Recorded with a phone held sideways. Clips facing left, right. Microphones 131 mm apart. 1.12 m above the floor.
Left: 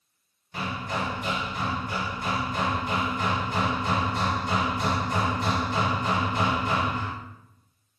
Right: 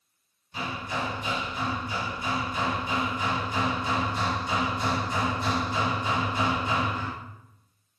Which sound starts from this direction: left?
Hammering, at 0.5 s.